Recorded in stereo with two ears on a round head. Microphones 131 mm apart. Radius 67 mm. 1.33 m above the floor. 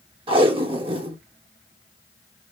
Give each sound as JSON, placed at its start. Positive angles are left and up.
{"t": 0.3, "sound": "tape being pulled", "side_deg": -40, "distance_m": 1.2}